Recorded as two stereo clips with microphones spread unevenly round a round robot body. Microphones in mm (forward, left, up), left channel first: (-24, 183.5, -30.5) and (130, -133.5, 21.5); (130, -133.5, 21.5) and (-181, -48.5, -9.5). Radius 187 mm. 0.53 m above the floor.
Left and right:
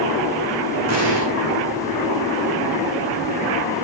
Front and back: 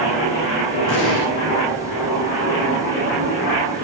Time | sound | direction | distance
0.9 | an explosion | 20° right | 8 m